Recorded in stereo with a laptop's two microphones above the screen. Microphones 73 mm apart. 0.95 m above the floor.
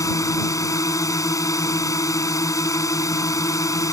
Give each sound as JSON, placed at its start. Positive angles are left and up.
{"t": 0.0, "sound": "a drone", "side_deg": 45}